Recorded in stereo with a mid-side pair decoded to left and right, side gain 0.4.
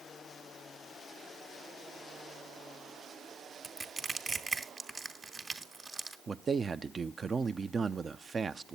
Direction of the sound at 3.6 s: 30° right.